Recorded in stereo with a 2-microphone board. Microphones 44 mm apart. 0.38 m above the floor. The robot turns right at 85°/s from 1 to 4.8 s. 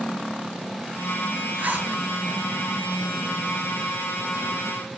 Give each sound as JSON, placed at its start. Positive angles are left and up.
{"t": 1.6, "sound": "a zipper", "side_deg": -45, "distance_m": 7.0}